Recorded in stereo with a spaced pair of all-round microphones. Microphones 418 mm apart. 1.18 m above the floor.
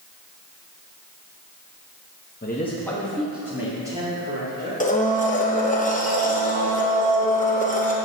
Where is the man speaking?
25° left (ahead or behind), 0.8 m; by 4.7 s 10° right (ahead or behind), 3.5 m.